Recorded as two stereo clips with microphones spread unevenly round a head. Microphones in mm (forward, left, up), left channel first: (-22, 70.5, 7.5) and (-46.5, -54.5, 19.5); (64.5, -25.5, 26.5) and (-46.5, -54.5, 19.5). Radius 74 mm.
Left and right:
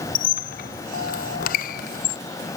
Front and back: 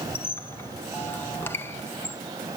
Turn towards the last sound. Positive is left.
turn(degrees=90)